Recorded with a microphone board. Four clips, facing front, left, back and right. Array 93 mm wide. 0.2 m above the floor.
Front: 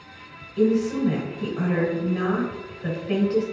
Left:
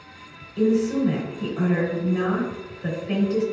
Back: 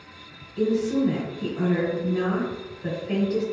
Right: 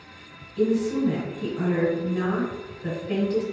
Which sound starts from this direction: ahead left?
A woman speaking, at 0.6 s.